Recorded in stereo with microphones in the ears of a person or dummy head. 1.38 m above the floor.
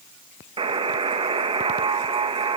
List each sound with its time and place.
0.6 s a buzzer: 25° right (ahead or behind), 1.9 m